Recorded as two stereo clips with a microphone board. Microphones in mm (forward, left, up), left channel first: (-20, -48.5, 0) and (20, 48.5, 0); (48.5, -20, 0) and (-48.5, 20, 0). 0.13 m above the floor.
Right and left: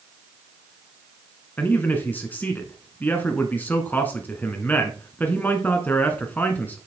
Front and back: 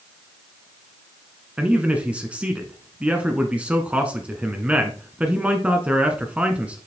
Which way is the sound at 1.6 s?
150° right.